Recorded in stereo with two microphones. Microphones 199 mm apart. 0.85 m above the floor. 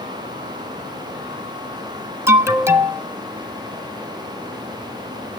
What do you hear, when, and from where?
2.3 s an alarm: 15° right (ahead or behind), 1.3 m